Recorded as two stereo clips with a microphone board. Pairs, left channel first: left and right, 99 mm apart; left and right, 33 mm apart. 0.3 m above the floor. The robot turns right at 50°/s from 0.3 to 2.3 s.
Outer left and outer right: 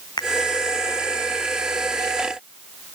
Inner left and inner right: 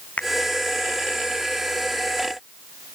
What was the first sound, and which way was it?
A finger snap, 45° left (ahead or behind).